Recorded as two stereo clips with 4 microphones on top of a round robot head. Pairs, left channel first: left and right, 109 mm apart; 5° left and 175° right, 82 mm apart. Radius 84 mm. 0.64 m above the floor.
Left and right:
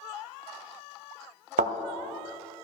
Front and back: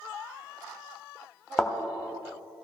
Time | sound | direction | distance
1.6 | a thud | 85° right | 1.0 m